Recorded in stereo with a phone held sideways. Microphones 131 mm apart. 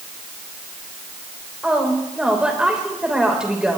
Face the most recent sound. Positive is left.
turn(degrees=-5)  # may be behind; listen again after turning